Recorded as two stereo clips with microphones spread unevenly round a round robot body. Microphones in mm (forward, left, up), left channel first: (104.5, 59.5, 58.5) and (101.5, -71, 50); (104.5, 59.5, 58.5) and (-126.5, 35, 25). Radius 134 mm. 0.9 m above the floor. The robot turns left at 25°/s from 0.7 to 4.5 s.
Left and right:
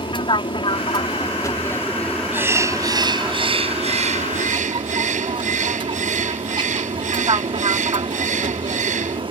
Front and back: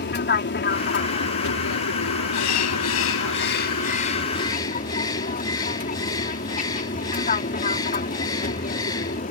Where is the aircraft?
45° left; by 9.3 s 50° right.